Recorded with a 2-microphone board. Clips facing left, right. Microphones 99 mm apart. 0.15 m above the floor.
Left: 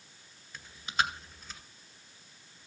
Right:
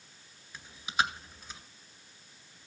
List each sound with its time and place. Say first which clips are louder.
0.5 s chewing: right 1 dB; 5° right (ahead or behind), 2.0 m